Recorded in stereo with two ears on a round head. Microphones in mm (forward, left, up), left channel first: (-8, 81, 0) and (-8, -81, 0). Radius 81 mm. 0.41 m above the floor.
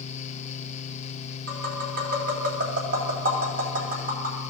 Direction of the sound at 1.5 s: 55° right (ahead or behind).